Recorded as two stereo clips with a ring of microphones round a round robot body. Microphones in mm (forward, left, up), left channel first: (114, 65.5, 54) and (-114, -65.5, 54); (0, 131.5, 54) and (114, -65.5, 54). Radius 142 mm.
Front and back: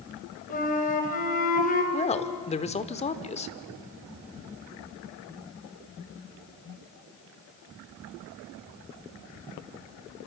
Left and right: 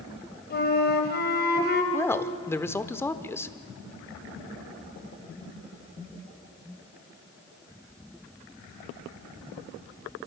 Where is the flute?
85° left, 2.5 m.